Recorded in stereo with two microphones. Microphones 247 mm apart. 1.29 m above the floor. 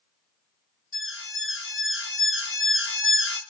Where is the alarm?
55° left (ahead or behind), 1.1 m.